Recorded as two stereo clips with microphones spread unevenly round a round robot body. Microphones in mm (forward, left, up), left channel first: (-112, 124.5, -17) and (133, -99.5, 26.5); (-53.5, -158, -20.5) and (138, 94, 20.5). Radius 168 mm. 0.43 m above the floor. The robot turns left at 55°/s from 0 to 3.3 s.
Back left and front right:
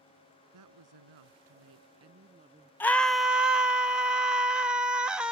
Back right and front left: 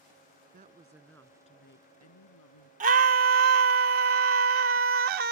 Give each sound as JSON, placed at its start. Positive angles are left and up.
{"t": 0.5, "sound": "a woman speaking", "azimuth_deg": -10}
{"t": 2.8, "sound": "a scream", "azimuth_deg": 90}